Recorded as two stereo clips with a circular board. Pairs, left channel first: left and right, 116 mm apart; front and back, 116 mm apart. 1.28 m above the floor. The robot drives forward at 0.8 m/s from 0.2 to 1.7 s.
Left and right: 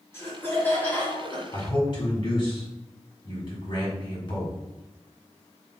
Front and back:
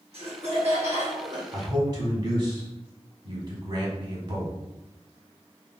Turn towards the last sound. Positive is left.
turn(degrees=135)